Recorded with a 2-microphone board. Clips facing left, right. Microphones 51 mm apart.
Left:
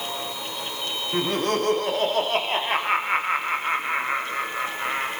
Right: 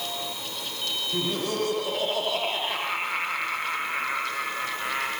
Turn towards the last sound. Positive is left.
turn(degrees=10)  # may be behind; listen again after turning